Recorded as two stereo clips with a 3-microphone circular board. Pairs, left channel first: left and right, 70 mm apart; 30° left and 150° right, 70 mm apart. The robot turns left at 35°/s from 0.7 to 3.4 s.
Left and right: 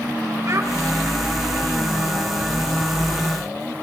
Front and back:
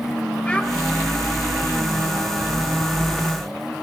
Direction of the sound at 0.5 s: 45° right.